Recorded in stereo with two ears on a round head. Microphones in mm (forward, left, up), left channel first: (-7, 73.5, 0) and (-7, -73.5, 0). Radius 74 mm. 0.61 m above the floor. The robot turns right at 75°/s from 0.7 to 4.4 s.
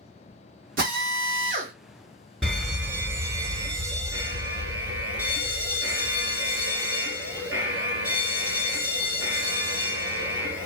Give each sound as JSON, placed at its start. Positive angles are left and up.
{"t": 0.8, "sound": "a drill", "azimuth_deg": -110, "distance_m": 1.2}
{"t": 2.4, "sound": "a fire alarm", "side_deg": 0, "distance_m": 1.7}